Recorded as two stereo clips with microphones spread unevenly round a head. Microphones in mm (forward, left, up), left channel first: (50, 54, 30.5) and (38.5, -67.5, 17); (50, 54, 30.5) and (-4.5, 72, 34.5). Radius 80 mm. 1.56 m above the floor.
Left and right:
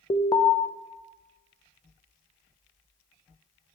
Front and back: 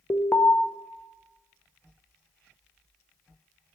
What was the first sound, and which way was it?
An alarm, 30° left.